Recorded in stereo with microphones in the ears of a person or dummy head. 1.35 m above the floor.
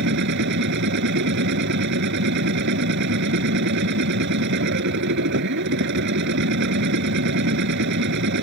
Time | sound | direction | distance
0.0 | a machine running | 60° right (ahead or behind) | ?